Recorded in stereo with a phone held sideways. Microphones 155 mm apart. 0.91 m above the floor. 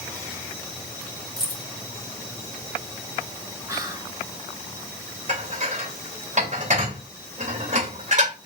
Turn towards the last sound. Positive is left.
turn(degrees=-50)  # may be behind; listen again after turning